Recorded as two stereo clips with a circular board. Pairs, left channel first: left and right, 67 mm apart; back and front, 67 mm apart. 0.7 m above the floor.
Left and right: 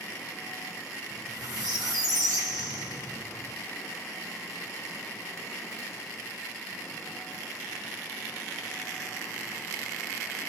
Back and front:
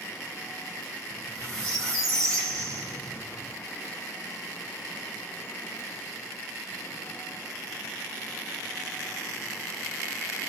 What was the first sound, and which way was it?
A squeak, 95° right.